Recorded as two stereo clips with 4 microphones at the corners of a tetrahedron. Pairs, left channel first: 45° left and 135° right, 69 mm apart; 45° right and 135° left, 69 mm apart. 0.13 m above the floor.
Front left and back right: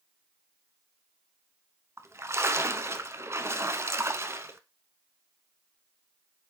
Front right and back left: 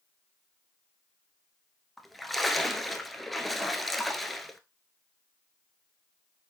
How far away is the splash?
About 0.9 m.